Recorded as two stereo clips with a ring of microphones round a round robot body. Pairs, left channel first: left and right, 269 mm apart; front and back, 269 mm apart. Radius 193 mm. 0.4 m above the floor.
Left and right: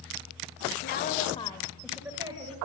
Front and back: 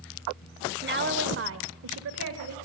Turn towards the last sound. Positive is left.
turn(degrees=-160)